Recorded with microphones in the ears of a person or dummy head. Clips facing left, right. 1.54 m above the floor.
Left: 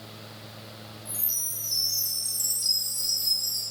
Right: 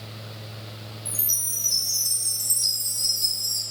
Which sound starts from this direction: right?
A chime, at 1.1 s.